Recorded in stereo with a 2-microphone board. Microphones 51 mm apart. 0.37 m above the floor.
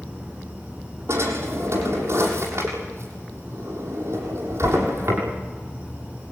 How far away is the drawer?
About 7 m.